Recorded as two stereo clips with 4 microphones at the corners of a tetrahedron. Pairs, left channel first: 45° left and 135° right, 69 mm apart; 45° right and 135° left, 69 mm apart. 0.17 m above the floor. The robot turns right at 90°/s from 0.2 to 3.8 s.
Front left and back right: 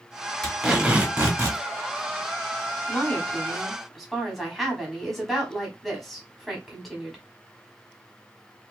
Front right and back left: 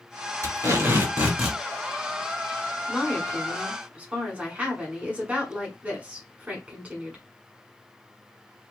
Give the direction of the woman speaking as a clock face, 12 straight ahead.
10 o'clock.